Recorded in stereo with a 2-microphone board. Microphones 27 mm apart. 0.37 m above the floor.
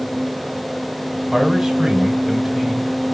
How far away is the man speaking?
About 1.7 m.